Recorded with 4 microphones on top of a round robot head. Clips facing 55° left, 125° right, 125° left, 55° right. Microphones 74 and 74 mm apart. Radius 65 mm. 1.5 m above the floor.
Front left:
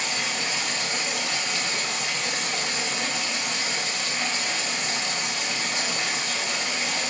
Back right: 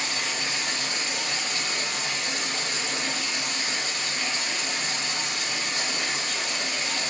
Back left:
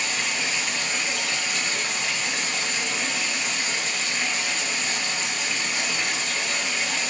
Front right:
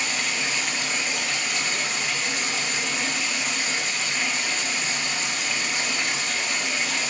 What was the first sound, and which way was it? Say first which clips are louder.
Running water: front left 1 dB, even; 30° left.